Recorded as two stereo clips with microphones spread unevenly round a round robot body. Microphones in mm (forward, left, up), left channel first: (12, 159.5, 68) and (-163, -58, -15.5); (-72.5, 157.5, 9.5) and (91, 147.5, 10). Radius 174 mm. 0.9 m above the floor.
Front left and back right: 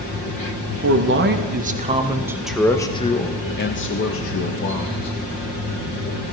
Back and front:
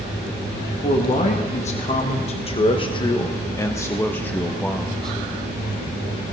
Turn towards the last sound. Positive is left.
turn(degrees=90)